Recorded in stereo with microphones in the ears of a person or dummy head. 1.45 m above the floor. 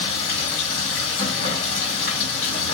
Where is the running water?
55° left (ahead or behind), 1.9 m.